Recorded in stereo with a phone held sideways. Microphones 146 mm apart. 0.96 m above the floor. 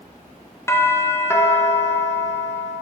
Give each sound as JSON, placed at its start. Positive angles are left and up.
{"t": 0.7, "sound": "a doorbell", "side_deg": 20, "distance_m": 0.8}